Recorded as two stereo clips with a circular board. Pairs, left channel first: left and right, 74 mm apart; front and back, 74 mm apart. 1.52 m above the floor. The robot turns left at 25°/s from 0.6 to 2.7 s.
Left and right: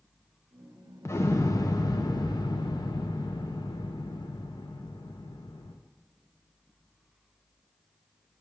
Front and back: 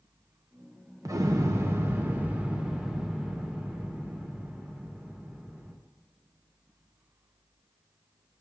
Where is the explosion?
145° left, 0.7 m; by 5.8 s 100° left, 0.7 m.